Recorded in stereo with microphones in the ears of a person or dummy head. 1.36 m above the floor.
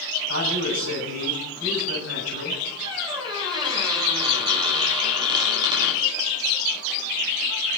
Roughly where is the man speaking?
Right.